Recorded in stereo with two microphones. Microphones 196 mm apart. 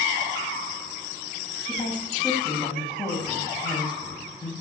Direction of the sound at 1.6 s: 20° left (ahead or behind).